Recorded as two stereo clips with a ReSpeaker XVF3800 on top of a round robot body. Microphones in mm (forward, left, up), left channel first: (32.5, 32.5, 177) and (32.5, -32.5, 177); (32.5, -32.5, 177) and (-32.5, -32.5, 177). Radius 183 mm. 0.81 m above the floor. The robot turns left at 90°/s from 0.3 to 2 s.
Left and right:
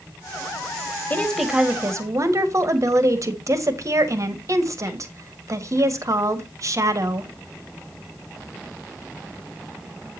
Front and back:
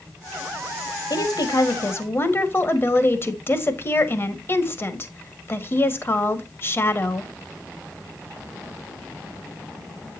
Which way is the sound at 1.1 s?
30° left.